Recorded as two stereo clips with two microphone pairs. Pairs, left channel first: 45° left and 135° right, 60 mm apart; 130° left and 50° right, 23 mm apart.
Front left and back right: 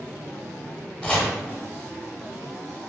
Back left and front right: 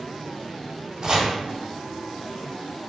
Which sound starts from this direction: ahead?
Chopping, at 1.0 s.